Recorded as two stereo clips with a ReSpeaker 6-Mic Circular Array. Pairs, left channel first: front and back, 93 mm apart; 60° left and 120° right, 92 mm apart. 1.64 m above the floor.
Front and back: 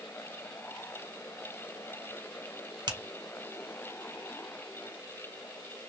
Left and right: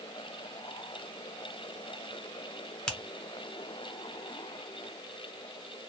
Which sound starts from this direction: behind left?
A finger snap, at 2.9 s.